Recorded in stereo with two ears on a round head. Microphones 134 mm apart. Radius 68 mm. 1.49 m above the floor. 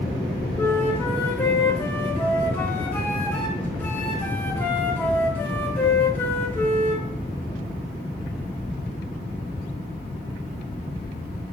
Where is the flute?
10° left (ahead or behind), 0.8 m.